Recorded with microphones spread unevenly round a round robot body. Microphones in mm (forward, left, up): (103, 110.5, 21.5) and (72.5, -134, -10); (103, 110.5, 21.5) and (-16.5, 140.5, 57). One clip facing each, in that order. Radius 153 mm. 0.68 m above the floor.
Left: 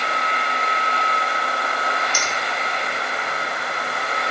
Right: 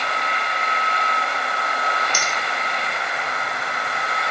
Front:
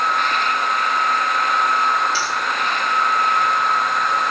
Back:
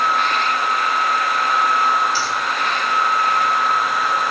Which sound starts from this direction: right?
A finger snap, at 2.1 s.